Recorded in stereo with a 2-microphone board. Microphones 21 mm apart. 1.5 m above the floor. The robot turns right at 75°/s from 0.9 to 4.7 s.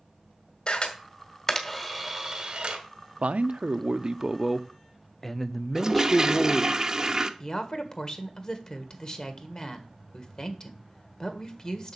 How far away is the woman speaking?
About 1.7 m.